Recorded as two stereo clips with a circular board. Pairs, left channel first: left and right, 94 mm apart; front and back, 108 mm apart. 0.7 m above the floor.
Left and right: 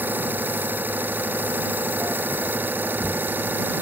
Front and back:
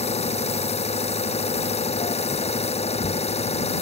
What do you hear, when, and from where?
0.0 s an engine running: 20° right